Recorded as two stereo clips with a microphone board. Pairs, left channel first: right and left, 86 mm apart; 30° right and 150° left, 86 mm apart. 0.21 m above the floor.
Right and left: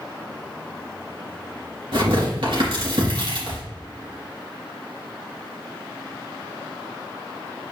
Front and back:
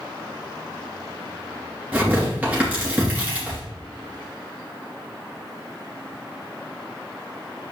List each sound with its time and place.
1.9 s tearing paper: 80° left, 3 m